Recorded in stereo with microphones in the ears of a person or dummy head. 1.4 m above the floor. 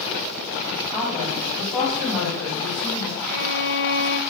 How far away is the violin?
About 1.2 m.